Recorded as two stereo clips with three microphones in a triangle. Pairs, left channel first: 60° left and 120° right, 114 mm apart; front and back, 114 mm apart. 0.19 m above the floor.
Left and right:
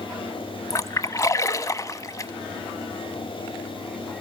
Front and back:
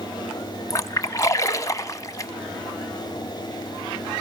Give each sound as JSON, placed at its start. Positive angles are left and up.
{"t": 0.7, "sound": "a splash", "azimuth_deg": 25, "distance_m": 0.8}